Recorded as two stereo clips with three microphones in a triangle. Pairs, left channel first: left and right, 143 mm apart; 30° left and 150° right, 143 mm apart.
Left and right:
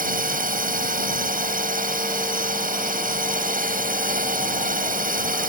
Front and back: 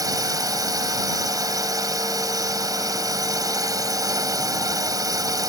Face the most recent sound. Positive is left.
turn(degrees=-85)